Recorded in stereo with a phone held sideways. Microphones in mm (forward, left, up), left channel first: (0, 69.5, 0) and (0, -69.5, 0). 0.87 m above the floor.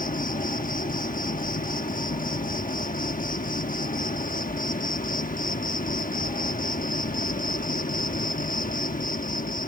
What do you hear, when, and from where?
0.0 s an insect: 85° left